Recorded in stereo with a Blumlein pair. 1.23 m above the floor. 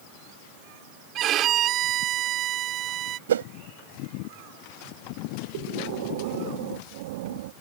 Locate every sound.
1.1 s a violin: 35° right
3.3 s a whoosh: 65° right
5.5 s breathing: 50° right